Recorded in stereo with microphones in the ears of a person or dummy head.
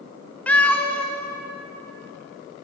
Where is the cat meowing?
10° left (ahead or behind), 0.6 m.